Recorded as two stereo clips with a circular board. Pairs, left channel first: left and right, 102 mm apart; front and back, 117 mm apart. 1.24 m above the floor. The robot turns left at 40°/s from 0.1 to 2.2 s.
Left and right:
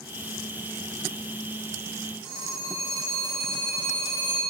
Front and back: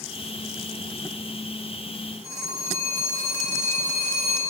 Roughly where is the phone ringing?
Behind left.